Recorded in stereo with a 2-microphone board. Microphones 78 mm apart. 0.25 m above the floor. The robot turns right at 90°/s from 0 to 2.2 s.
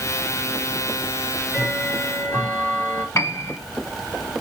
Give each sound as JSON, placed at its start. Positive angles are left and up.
{"t": 1.2, "sound": "ticking", "azimuth_deg": -35, "distance_m": 4.5}
{"t": 3.1, "sound": "a piano", "side_deg": 40, "distance_m": 0.6}